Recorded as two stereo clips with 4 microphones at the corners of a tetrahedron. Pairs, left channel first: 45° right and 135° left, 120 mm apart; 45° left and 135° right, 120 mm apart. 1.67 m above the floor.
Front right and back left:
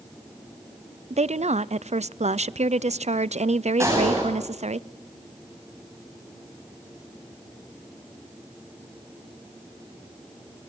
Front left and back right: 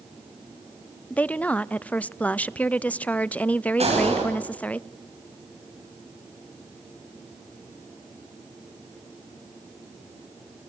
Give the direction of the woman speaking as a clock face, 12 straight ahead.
8 o'clock.